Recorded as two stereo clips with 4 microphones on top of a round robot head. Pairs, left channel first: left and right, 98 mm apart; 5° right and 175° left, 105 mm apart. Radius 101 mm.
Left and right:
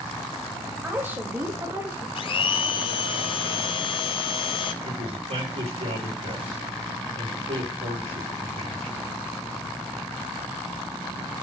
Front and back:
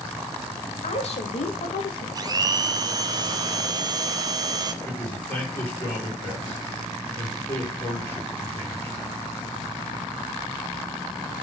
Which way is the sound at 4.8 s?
80° right.